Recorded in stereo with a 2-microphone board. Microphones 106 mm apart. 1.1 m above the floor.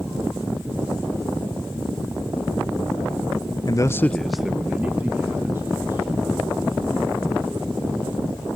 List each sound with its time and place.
3.7 s a man speaking: 40° left (ahead or behind), 0.6 m; by 8.6 s 30° right (ahead or behind), 4.5 m